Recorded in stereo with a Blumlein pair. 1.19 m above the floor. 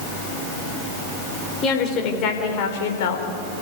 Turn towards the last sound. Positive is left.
turn(degrees=55)